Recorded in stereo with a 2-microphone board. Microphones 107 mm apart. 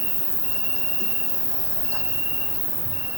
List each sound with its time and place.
0.0 s an insect: 80° right, 1.0 m